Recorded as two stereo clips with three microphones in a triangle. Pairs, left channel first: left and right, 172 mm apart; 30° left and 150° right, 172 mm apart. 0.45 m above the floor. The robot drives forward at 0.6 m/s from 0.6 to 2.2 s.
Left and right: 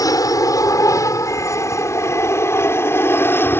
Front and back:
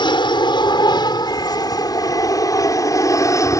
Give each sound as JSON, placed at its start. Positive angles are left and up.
{"t": 0.0, "sound": "an aircraft", "azimuth_deg": 50}